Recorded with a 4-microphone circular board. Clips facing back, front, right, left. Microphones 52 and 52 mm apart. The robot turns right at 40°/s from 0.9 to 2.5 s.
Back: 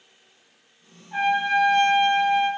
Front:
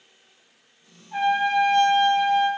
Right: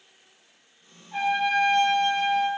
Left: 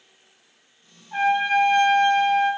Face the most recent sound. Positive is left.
turn(degrees=175)